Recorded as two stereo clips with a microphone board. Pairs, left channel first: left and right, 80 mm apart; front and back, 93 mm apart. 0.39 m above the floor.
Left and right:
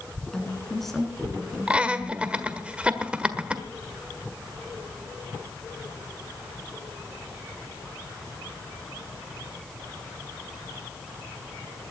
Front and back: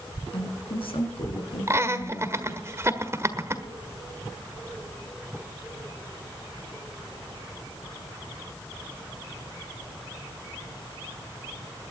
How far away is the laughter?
About 1.5 m.